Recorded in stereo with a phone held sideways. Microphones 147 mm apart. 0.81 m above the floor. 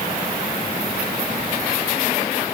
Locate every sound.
Only background noise.